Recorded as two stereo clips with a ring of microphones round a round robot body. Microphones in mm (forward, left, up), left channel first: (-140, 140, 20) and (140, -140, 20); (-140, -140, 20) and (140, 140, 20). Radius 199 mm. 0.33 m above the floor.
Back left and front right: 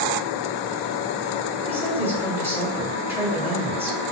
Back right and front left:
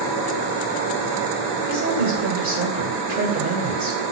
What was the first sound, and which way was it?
A woman speaking, 30° left.